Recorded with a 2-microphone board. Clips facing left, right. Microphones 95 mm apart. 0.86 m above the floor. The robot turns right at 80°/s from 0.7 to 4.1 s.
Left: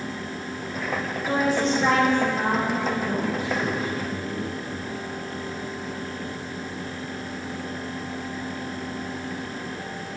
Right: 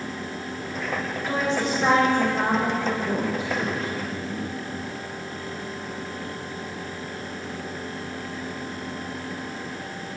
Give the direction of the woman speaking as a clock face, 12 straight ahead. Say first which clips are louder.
Left 3 dB; 7 o'clock.